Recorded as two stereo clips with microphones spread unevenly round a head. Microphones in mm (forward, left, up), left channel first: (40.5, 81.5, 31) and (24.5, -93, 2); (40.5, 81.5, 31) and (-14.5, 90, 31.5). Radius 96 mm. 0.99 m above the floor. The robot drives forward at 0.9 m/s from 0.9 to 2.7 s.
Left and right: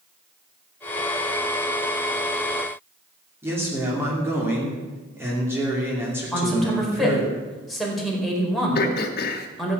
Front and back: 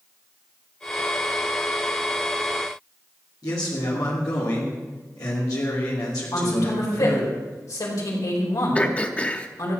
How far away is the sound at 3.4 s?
About 2.5 m.